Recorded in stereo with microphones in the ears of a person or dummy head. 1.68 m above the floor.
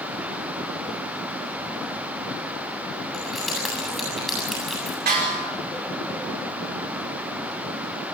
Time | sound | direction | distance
3.1 | keys jangling | 5° right (ahead or behind) | 7.5 m
5.1 | a snare drum | 55° right (ahead or behind) | 6 m